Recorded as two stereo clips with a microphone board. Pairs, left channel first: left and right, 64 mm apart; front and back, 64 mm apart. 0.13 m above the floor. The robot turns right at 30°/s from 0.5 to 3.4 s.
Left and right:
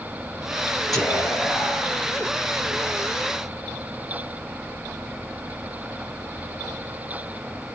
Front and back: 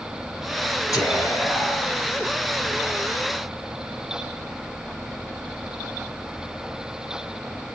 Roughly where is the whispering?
Ahead.